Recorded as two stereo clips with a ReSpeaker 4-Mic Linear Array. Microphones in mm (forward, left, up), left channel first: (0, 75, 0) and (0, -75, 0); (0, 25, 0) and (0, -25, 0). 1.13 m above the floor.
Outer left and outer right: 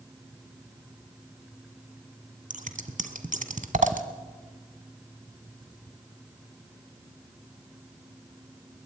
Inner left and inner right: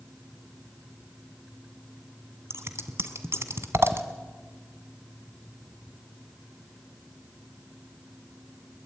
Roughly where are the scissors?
Right.